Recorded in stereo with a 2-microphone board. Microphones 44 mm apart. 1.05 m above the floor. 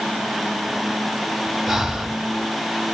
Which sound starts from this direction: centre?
Breathing, at 1.7 s.